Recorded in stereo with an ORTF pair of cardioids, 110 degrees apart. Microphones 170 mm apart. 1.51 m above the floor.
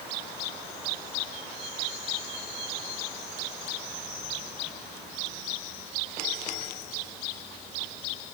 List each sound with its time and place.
Only background noise.